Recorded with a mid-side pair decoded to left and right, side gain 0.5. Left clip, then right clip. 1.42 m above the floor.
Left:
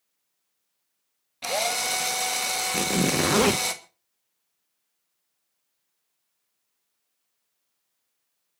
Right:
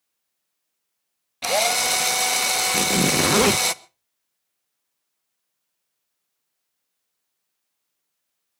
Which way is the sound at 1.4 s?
40° right.